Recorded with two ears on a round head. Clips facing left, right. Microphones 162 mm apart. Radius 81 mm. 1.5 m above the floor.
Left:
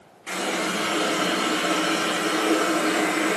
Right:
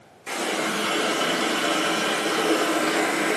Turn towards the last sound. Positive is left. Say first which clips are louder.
# even
turn(degrees=0)  # may be behind; listen again after turning